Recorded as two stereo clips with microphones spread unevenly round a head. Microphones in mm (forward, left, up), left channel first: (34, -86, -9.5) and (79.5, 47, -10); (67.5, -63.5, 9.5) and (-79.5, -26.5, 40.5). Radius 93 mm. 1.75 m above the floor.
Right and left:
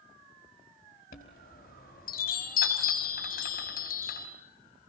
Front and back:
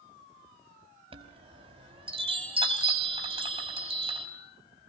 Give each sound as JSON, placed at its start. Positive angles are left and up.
{"t": 1.1, "sound": "a chime", "azimuth_deg": -145, "distance_m": 5.0}